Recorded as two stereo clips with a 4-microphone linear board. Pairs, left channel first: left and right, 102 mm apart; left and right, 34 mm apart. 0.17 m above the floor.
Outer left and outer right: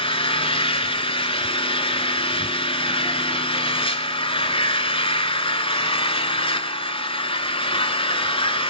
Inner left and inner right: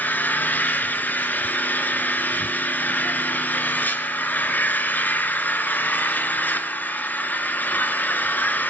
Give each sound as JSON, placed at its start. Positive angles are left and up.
{"t": 0.0, "sound": "an engine running", "side_deg": 55, "distance_m": 1.1}